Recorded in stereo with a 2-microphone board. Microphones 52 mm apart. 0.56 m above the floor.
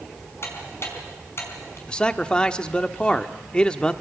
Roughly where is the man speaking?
Centre.